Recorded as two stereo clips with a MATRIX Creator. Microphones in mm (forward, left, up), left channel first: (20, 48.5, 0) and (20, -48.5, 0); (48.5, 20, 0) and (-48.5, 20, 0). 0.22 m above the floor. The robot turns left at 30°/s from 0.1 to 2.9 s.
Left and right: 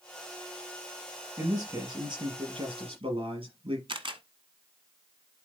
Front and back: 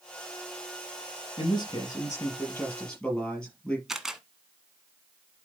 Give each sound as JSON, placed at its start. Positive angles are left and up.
{"t": 1.4, "sound": "a man speaking", "azimuth_deg": -35, "distance_m": 5.0}
{"t": 3.9, "sound": "a camera shutter", "azimuth_deg": -95, "distance_m": 1.0}